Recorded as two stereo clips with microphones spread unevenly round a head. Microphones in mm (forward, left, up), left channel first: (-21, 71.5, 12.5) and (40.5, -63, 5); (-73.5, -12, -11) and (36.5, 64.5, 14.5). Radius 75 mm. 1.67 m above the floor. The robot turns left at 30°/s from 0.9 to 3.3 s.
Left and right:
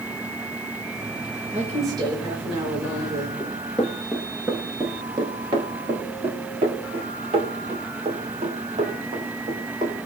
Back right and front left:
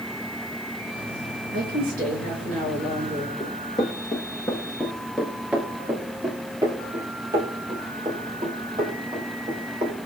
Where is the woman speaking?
15° left, 6.5 m; by 3.3 s 40° right, 6.5 m.